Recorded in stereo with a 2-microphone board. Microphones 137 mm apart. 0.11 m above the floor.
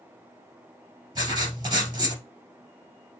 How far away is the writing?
About 2 m.